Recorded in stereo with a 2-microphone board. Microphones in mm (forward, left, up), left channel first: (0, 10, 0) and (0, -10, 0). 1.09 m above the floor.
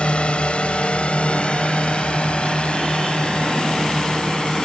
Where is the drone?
75° left (ahead or behind); by 4.7 s 50° left (ahead or behind).